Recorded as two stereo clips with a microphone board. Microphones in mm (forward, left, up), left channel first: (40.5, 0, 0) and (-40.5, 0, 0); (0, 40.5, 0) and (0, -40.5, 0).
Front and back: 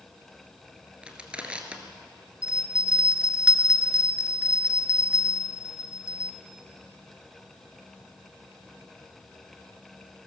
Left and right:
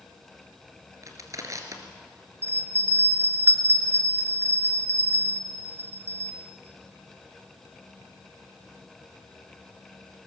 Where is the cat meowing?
I don't hear a cat meowing.